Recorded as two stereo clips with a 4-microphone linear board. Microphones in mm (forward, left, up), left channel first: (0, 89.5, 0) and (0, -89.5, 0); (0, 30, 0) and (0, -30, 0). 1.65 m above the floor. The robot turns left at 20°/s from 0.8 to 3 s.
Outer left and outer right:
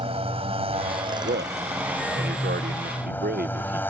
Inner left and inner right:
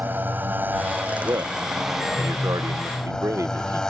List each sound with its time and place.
0.0 s a motorcycle: 145° right; by 3.9 s 170° left
1.2 s a man speaking: 70° right (ahead or behind); by 3.8 s 55° right (ahead or behind)